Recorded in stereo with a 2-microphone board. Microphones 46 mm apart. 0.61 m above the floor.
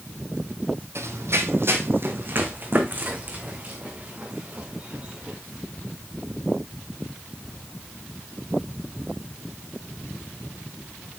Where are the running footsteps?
65° right (ahead or behind), 1.4 m; by 5.4 s 25° right (ahead or behind), 4 m.